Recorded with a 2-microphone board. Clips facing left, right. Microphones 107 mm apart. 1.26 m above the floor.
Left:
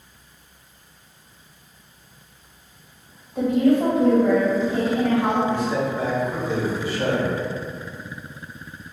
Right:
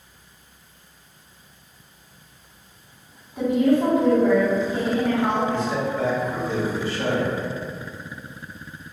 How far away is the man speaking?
About 0.9 m.